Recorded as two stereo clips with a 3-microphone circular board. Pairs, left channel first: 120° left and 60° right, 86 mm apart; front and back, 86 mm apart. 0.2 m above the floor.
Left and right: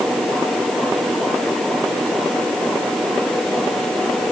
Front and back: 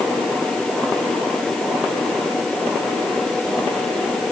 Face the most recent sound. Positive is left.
No sound to turn to.